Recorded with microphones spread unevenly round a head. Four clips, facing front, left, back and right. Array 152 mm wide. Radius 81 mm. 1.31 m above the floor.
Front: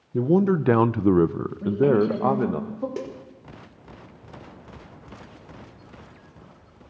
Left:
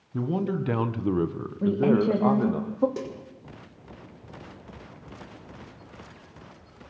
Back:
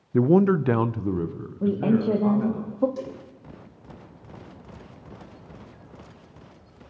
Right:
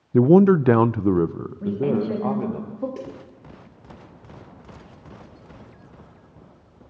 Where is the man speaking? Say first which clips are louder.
Right 14 dB, back 2 dB; 90° right, 0.6 m; by 2.6 s 10° left, 1.4 m.